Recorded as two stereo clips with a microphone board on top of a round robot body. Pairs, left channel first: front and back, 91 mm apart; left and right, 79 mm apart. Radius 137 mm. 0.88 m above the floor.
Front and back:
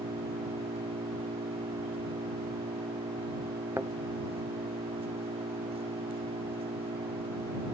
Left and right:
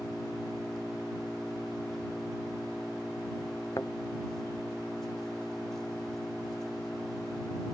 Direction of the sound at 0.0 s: 175° left.